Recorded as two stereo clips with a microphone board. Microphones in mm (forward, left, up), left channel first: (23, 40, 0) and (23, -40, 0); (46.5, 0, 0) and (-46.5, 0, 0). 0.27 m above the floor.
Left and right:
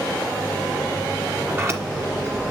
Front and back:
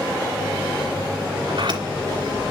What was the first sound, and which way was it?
A sliding door, 145° right.